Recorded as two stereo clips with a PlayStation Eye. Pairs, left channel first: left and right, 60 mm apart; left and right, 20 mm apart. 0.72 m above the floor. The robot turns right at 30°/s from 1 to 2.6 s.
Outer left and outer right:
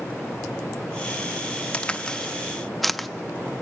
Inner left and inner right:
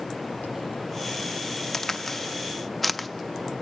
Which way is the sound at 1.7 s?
20° left (ahead or behind).